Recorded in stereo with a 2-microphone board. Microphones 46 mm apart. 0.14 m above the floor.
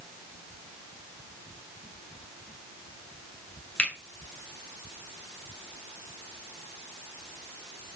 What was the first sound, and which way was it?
A finger snap, 25° left (ahead or behind).